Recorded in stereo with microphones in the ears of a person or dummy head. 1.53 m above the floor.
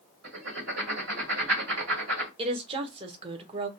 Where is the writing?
80° right, 1.8 m.